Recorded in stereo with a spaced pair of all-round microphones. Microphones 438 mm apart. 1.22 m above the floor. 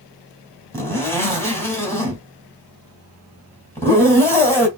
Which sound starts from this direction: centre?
A zipper, at 0.7 s.